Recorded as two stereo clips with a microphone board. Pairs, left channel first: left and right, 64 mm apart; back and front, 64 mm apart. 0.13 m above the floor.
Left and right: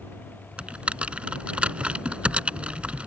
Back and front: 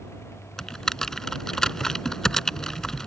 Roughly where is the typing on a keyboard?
Behind right.